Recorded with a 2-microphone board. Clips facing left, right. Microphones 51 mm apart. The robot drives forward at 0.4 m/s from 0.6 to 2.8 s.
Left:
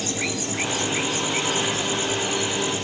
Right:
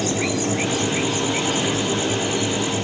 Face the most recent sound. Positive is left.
No sound to turn to.